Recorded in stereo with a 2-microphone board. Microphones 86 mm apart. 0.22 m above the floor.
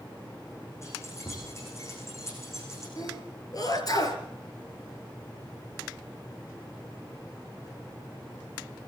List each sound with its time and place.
0.8 s keys jangling: 35° left (ahead or behind), 8.5 m
3.0 s a sneeze: 45° left (ahead or behind), 4.5 m